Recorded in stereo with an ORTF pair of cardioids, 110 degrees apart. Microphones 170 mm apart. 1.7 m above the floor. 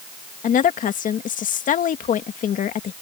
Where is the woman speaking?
50° left.